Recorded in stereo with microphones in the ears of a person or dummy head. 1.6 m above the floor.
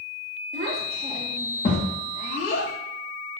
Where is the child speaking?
45° right (ahead or behind), 1.3 m; by 2.7 s 60° left (ahead or behind), 1.9 m.